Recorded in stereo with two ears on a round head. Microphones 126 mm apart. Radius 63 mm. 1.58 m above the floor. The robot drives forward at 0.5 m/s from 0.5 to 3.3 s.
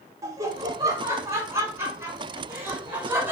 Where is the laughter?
25° right (ahead or behind), 2.5 m; by 3.3 s 15° right (ahead or behind), 3.5 m.